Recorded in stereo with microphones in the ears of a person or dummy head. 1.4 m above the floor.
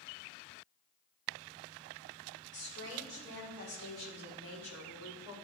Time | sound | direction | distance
2.5 | a woman speaking | 65° left (ahead or behind) | 5 m